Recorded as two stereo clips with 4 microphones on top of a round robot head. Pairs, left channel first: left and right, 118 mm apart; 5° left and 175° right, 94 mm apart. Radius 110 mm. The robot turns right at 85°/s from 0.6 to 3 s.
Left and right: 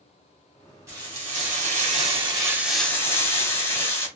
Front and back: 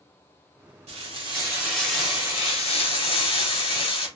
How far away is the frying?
About 2 m.